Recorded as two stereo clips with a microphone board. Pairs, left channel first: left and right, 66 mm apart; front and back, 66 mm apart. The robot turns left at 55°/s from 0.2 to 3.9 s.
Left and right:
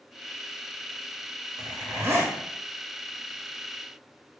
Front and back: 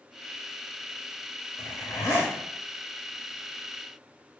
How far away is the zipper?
About 1.0 m.